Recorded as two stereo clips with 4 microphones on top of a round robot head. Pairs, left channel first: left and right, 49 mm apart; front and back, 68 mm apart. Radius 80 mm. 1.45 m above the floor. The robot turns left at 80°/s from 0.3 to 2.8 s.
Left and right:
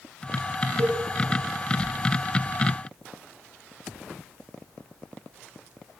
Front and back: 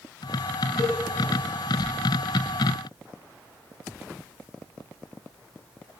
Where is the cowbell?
55° right, 5.5 m; by 1.0 s 70° right, 5.5 m.